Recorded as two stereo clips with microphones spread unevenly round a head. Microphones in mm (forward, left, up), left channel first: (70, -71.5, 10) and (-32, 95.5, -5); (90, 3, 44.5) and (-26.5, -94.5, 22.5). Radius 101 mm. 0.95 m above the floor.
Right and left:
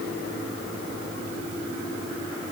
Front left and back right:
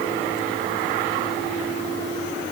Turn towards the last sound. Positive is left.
No sound to turn to.